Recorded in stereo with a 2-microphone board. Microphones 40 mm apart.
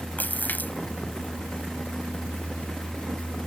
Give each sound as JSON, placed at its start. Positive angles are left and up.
{"t": 0.2, "sound": "a splash", "side_deg": 45}